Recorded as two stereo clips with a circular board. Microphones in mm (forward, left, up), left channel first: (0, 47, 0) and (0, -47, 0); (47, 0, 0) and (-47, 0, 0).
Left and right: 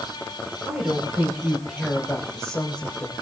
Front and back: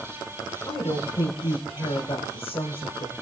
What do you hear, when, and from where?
0.7 s a woman speaking: 25° right, 3.5 m; by 3.1 s 10° left, 3 m